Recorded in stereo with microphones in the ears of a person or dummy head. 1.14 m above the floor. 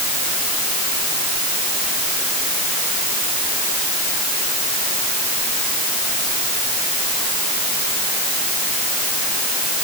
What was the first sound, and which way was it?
Only background noise.